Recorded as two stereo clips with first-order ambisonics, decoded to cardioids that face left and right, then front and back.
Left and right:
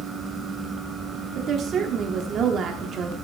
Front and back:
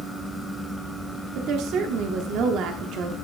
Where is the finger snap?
I don't hear a finger snap.